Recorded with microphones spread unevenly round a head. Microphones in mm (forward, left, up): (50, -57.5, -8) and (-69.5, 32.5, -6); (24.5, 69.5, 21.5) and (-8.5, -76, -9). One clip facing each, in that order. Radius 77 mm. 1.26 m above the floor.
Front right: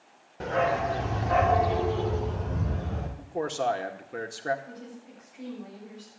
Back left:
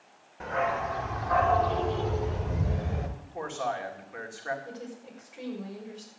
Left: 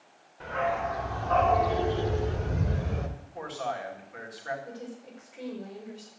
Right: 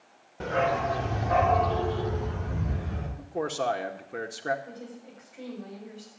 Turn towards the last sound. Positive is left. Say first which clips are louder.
# back left 2 dB, left 1 dB
turn(degrees=135)